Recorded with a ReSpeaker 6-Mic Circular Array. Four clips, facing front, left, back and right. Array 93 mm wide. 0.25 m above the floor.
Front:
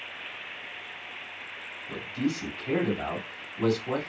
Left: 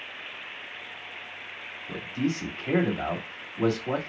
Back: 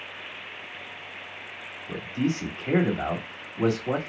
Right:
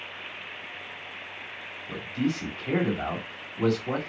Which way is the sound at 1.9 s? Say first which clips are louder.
Even, back 3 dB; 155° left.